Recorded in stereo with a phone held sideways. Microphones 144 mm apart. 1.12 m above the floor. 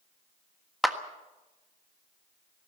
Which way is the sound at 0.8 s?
Centre (ahead or behind).